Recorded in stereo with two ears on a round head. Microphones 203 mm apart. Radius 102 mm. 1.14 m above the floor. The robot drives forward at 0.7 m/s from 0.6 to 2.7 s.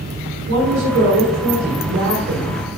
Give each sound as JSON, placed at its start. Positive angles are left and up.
{"t": 0.5, "sound": "a woman speaking", "side_deg": -65, "distance_m": 4.0}